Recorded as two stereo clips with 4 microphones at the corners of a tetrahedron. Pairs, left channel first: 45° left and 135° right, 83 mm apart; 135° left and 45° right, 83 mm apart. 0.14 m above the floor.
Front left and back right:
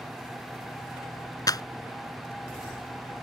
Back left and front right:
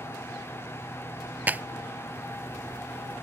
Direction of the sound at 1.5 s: 20° left.